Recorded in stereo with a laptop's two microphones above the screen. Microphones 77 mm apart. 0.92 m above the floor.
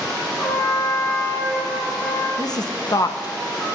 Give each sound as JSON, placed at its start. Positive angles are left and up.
{"t": 0.4, "sound": "a trumpet", "side_deg": 45, "distance_m": 5.0}
{"t": 2.4, "sound": "a woman speaking", "side_deg": 55, "distance_m": 0.6}